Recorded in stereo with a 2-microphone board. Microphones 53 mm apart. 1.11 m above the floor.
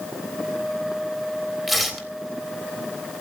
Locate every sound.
1.7 s tearing paper: centre (ahead or behind), 3.5 m